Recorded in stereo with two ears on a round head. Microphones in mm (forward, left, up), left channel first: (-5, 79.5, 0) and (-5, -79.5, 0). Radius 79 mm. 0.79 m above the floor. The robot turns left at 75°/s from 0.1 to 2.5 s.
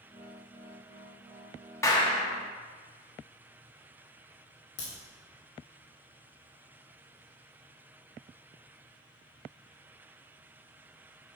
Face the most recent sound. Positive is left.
turn(degrees=70)  # may be behind; listen again after turning